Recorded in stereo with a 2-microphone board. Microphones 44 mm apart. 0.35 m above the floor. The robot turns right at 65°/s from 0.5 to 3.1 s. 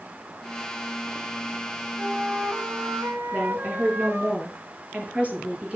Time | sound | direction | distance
2.0 | a flute | 145° right | 2.0 m
3.3 | a woman speaking | 20° right (ahead or behind) | 7.5 m